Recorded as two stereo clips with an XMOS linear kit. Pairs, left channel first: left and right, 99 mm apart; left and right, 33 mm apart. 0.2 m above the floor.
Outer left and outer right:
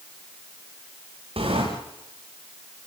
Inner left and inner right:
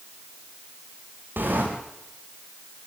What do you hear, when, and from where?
1.4 s a sliding door: 80° right, 8.5 m